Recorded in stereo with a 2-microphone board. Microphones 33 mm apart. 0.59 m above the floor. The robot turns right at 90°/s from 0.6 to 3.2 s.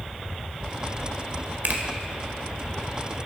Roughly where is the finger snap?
Right.